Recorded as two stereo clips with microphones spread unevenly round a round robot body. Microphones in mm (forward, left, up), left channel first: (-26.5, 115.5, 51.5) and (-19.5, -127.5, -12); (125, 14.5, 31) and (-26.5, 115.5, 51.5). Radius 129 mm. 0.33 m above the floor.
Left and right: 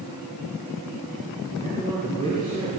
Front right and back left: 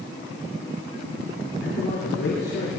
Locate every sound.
1.6 s a man speaking: 15° right, 7 m